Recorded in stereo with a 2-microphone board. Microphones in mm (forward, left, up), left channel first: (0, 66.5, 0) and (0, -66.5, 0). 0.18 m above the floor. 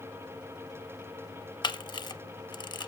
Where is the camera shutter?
35° left (ahead or behind), 0.5 m.